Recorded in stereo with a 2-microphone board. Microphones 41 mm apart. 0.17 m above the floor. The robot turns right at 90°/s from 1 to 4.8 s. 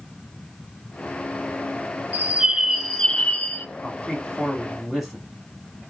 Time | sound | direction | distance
2.1 | a bird | 55° right | 0.8 m
3.8 | a man speaking | 25° left (ahead or behind) | 1.6 m